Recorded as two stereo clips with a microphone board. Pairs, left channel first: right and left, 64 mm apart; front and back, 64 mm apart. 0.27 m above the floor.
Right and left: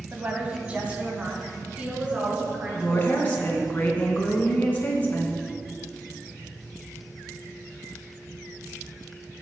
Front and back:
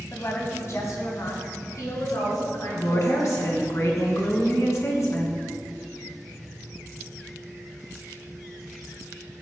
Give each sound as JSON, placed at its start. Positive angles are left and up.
{"t": 0.1, "sound": "a woman speaking", "azimuth_deg": 30, "distance_m": 1.7}
{"t": 2.7, "sound": "a woman speaking", "azimuth_deg": -30, "distance_m": 2.5}